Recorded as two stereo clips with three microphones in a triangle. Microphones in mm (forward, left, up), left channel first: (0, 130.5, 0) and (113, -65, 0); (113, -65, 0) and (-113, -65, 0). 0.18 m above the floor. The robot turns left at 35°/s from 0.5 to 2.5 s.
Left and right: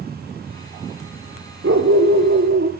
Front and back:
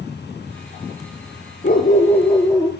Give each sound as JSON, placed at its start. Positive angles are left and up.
{"t": 1.6, "sound": "a dog barking", "azimuth_deg": -45, "distance_m": 1.7}